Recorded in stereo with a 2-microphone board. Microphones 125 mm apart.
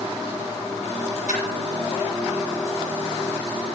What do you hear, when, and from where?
1.3 s a splash: 80° left, 4 m